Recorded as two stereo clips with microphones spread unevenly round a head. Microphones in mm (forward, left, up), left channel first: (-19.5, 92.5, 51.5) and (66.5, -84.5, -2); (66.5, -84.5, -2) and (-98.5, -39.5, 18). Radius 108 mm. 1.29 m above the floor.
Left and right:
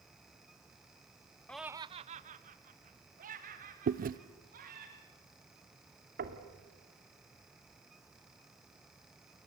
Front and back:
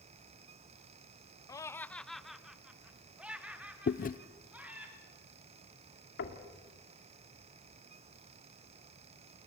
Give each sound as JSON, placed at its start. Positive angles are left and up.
{"t": 1.5, "sound": "laughter", "azimuth_deg": 10, "distance_m": 0.5}
{"t": 3.9, "sound": "chewing", "azimuth_deg": -40, "distance_m": 0.6}
{"t": 6.2, "sound": "knocking", "azimuth_deg": -20, "distance_m": 2.0}